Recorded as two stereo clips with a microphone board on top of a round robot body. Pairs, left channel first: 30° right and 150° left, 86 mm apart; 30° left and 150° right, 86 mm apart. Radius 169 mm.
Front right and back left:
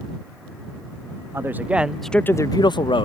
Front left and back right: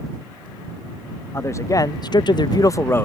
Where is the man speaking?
90° left; by 3.1 s 35° right.